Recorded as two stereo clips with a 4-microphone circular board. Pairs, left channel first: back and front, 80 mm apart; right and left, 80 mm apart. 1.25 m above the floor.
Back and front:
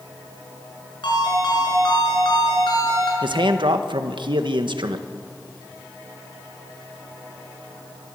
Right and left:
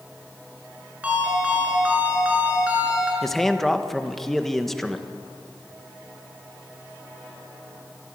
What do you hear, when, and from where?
1.0 s a ringtone: 165° left, 6.5 m
3.2 s a man speaking: 5° right, 1.3 m